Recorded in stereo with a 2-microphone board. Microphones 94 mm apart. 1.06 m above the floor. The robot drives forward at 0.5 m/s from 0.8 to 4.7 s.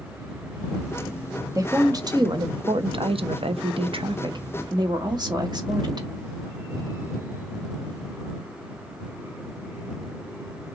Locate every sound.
1.6 s a woman speaking: 35° right (ahead or behind), 1.2 m; by 6.1 s 45° right (ahead or behind), 0.9 m